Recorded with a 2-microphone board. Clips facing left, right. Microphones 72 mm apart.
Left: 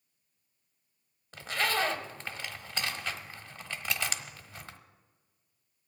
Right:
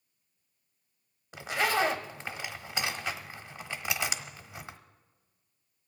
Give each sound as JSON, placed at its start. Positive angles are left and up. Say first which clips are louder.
{"t": 1.3, "sound": "a zipper", "louder": "right 3 dB", "side_deg": -15, "distance_m": 1.0}